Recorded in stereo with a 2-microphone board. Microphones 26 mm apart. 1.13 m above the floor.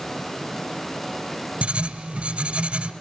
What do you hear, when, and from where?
1.6 s writing: 50° right (ahead or behind), 1.2 m